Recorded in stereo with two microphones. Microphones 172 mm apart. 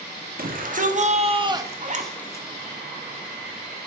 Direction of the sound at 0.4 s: 55° right (ahead or behind).